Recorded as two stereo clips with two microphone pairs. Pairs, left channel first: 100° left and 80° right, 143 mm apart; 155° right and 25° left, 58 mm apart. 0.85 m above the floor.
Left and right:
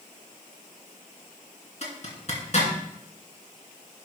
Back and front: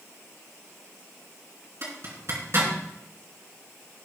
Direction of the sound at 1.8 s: 60° left.